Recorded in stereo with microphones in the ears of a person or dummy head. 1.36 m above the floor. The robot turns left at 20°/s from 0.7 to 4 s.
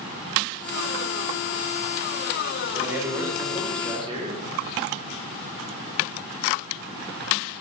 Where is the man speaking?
5° right (ahead or behind), 1.3 m; by 4.5 s 35° right (ahead or behind), 1.3 m.